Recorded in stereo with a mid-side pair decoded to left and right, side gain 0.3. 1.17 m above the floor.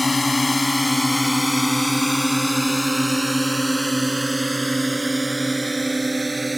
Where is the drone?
30° left; by 6.6 s 25° right.